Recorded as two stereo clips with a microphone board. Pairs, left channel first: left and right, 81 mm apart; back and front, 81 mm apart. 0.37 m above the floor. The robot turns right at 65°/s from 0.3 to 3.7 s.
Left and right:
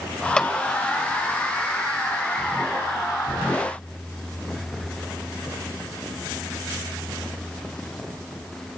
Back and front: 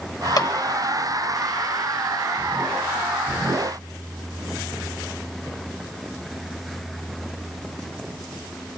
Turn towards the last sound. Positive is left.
turn(degrees=25)